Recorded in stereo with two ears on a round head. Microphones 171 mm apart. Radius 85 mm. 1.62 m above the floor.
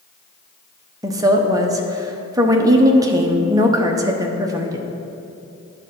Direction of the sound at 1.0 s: 20° right (ahead or behind).